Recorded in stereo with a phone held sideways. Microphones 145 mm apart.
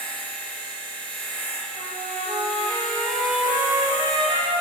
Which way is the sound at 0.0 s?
10° left (ahead or behind).